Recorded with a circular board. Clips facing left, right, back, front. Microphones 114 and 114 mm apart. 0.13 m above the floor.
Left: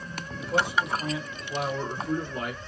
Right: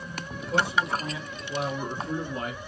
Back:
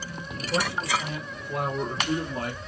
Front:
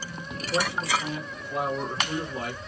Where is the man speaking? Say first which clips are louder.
Even, even; straight behind, 3 m; by 2.6 s 140° right, 3 m.